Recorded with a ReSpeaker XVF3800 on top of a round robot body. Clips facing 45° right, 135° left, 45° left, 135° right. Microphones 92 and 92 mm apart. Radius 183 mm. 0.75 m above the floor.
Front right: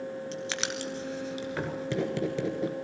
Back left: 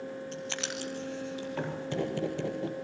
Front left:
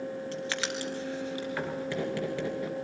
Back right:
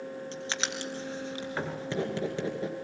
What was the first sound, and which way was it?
Writing, 70° right.